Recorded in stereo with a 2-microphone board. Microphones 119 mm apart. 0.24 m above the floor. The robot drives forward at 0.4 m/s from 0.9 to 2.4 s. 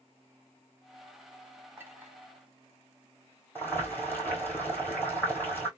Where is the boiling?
15° left (ahead or behind), 2 m.